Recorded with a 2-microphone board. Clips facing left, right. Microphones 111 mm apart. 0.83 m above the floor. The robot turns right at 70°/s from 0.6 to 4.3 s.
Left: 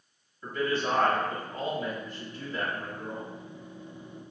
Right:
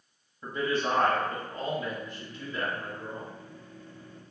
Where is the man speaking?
40° right, 0.9 m; by 3.3 s 150° left, 0.9 m.